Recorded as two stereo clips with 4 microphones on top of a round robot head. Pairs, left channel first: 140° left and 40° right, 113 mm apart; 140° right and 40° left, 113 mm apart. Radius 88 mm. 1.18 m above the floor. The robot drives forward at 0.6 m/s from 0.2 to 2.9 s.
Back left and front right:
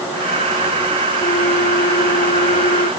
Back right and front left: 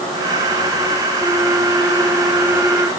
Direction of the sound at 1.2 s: 120° left.